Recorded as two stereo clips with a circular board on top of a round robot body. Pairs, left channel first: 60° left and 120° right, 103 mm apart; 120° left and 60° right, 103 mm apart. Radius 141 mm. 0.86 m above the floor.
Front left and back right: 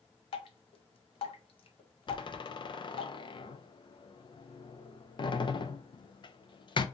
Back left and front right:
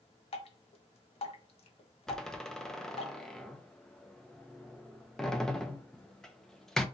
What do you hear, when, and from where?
0.3 s dripping: 95° left, 0.5 m
2.1 s a door slam: 35° left, 0.6 m